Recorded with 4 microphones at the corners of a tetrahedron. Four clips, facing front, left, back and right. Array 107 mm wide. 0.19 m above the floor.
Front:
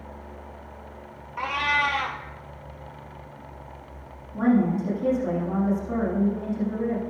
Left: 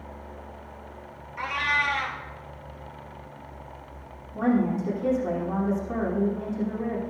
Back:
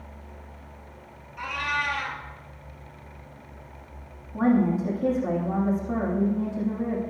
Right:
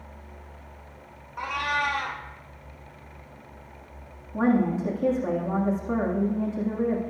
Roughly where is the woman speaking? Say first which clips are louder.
Right 1 dB, even; right.